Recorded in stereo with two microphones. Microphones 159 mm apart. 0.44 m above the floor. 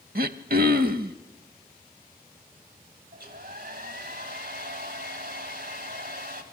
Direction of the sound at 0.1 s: 70° right (ahead or behind).